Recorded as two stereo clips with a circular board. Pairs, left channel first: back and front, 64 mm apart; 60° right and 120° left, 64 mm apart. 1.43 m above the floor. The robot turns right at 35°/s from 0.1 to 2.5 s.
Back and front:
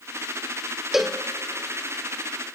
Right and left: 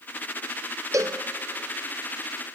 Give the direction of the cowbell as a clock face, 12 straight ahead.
9 o'clock.